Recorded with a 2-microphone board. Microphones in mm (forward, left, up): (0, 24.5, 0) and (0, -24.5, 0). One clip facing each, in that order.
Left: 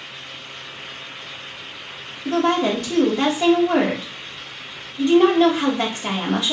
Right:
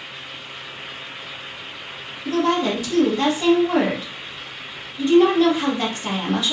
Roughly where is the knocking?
I don't hear knocking.